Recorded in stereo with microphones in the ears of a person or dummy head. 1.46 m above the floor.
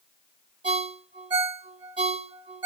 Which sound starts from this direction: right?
A ringtone, at 0.6 s.